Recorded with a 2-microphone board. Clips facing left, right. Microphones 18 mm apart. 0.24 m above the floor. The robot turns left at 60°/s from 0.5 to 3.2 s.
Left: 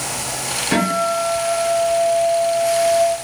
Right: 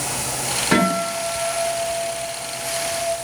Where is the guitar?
25° right, 1.3 m; by 3.0 s 165° right, 1.3 m.